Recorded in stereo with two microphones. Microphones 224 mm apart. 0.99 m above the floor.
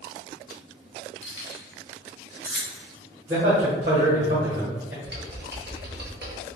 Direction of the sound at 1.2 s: 60° left (ahead or behind).